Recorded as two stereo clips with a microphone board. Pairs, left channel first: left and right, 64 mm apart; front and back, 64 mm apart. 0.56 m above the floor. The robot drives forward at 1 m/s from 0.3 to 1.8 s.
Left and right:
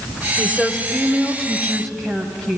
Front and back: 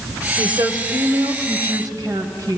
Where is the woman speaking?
175° left, 1.8 m.